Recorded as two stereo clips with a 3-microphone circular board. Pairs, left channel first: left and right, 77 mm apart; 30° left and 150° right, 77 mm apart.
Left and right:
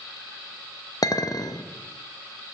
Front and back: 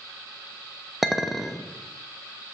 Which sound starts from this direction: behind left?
A clink, at 1.0 s.